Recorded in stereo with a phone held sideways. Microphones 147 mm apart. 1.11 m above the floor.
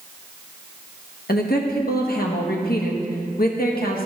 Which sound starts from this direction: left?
A woman speaking, at 1.3 s.